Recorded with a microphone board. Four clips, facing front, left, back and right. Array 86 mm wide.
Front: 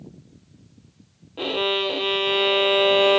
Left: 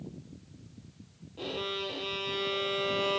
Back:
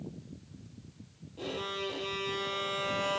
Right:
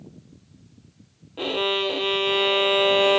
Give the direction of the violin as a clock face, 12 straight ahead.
1 o'clock.